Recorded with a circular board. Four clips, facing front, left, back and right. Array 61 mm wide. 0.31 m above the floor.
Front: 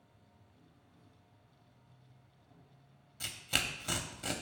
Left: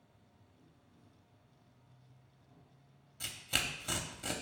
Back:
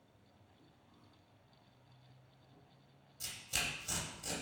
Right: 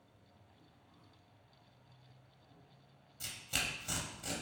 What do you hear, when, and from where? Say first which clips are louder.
0.0 s an insect: right 1 dB, front 1 dB; 35° right, 1.4 m
3.2 s tearing paper: left 2 dB, front 5 dB; 25° left, 0.6 m